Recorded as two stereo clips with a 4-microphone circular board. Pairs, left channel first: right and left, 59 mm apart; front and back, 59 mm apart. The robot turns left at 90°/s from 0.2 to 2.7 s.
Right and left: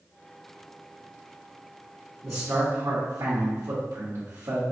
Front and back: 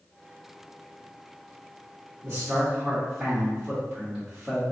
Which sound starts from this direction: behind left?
A man speaking, at 2.2 s.